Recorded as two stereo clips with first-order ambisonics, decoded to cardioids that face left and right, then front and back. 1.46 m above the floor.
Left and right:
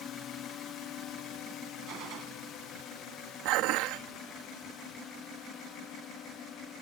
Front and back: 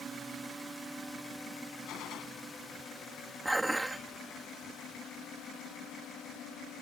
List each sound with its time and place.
0.0 s a drone: 115° left; by 6.8 s 40° left
1.9 s a gunshot: 45° right
3.5 s dishes clattering: 90° right